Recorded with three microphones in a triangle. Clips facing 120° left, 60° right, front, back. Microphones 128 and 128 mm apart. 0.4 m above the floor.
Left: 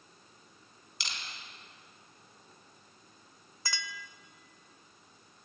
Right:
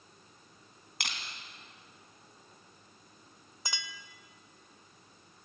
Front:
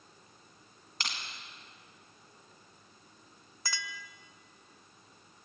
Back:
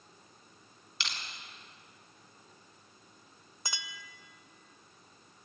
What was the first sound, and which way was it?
Crushing, 40° right.